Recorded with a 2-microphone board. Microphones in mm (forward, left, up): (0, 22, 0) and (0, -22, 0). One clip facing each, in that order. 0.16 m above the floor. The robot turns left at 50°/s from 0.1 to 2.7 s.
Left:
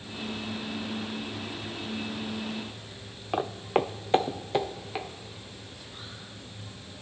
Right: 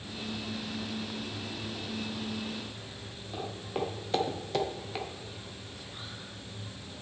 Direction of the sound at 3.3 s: 80° left.